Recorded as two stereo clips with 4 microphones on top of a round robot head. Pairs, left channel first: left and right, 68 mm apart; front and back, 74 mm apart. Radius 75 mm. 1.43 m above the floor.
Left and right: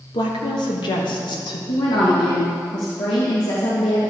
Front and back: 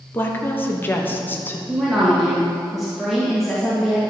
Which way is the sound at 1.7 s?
95° left.